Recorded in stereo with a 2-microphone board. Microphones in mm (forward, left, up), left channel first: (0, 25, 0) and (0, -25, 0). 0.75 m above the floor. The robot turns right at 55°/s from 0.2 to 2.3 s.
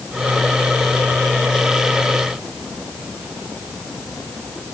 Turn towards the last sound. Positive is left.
No sound to turn to.